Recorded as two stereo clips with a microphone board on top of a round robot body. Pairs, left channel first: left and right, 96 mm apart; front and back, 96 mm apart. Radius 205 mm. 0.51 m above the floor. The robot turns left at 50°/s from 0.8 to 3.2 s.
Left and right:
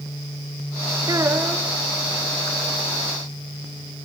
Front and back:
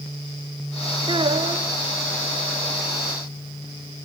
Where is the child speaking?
140° right, 1.4 m; by 1.7 s 170° right, 1.4 m.